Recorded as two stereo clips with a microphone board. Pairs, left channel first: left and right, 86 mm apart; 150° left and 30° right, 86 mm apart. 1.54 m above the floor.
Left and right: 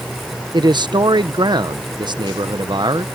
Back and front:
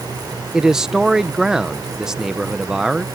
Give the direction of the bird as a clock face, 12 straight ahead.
No bird in this recording.